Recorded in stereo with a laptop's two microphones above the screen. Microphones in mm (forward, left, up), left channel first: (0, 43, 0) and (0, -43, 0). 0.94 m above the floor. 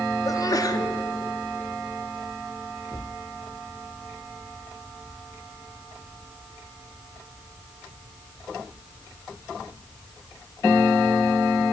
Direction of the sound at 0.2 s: 45° left (ahead or behind).